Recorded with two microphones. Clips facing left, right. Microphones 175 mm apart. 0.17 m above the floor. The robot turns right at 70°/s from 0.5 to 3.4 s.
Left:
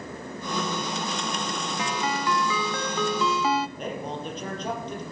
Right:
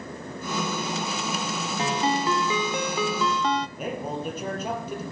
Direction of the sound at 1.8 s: 100° right.